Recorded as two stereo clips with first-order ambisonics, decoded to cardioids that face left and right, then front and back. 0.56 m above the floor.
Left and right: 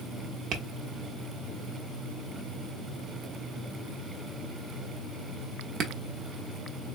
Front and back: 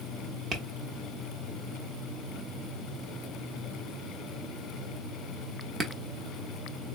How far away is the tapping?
About 0.9 m.